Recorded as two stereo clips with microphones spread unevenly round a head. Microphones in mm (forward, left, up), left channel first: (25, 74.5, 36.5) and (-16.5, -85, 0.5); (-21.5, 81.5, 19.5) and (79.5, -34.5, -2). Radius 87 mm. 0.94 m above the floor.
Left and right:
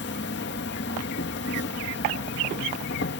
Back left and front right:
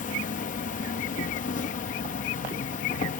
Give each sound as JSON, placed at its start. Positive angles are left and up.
{"t": 0.0, "sound": "an insect", "azimuth_deg": 95}